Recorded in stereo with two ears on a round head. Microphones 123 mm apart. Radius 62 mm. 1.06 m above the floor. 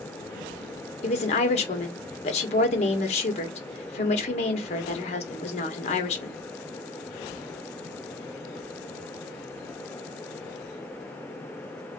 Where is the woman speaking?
50° left (ahead or behind), 1.1 m.